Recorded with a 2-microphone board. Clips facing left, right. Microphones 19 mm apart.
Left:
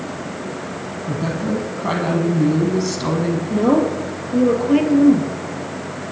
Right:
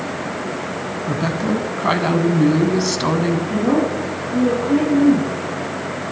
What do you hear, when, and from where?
1.1 s a woman speaking: 30° right (ahead or behind), 1.5 m
3.5 s a woman speaking: 70° left (ahead or behind), 4 m